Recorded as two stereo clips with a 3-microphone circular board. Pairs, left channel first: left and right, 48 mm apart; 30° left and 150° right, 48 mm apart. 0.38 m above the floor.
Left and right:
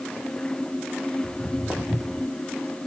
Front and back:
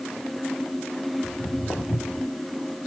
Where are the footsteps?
40° left, 1.6 m; by 2.3 s 50° left, 2.0 m.